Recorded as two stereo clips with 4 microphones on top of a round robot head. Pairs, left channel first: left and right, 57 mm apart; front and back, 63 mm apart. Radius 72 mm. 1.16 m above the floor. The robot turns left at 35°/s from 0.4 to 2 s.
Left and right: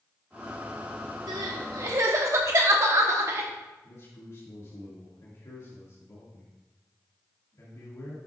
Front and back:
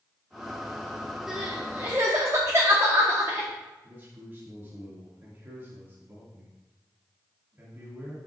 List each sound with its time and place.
1.3 s crying: 95° right, 1.0 m; by 3.5 s 120° right, 1.0 m
3.8 s a man speaking: 120° left, 2 m